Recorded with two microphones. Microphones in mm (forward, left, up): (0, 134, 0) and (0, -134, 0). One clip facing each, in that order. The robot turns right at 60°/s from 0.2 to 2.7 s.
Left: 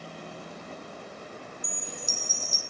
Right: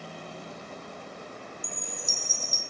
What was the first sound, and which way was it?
A chime, 60° left.